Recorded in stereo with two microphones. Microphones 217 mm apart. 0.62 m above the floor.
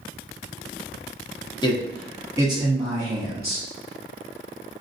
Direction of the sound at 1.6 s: 20° left (ahead or behind).